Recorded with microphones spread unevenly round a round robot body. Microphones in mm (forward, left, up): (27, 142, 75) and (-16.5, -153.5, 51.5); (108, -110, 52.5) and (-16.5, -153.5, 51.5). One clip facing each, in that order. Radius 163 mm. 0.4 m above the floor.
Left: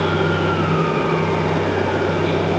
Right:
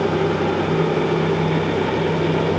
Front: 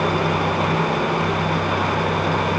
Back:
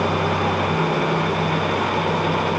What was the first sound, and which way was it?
Only background noise.